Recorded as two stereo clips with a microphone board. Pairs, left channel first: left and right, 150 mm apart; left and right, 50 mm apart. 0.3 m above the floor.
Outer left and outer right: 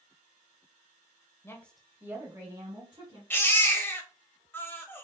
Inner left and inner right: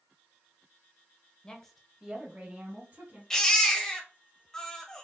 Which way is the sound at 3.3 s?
15° left (ahead or behind).